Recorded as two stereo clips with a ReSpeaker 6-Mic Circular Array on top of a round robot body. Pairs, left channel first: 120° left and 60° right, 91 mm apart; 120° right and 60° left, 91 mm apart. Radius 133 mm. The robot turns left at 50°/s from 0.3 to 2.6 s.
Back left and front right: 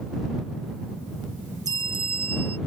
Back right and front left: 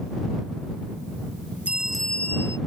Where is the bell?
15° right; by 2.6 s 60° right.